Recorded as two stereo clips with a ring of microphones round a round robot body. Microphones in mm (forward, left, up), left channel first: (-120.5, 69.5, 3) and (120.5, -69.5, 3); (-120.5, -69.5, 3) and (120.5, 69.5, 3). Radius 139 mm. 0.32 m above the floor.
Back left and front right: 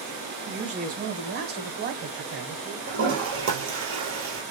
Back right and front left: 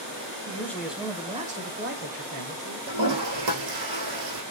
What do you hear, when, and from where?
0.5 s a man speaking: 85° right, 1.0 m; by 2.8 s 20° left, 1.5 m
2.9 s a toilet flushing: 20° left, 3 m